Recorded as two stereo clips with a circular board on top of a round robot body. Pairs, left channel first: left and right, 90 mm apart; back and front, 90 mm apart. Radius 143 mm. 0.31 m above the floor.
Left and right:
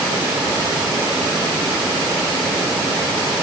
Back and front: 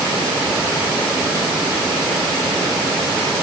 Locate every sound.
Only background noise.